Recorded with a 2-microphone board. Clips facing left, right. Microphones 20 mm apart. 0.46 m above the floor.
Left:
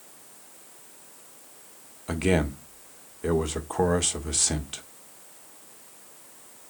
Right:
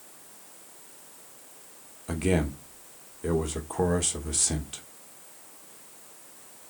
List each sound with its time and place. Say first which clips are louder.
2.1 s a man speaking: left 2 dB; 20° left (ahead or behind), 1.3 m